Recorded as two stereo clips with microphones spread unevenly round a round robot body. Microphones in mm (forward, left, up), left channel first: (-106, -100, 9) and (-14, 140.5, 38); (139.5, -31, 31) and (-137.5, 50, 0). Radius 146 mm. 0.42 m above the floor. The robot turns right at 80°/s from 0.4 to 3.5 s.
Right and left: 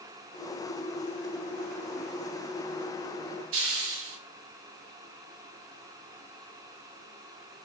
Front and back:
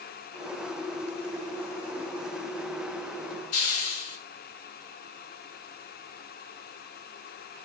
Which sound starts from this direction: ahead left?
A hiss, at 3.5 s.